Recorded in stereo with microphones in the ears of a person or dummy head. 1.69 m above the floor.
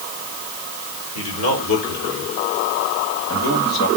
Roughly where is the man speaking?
Left.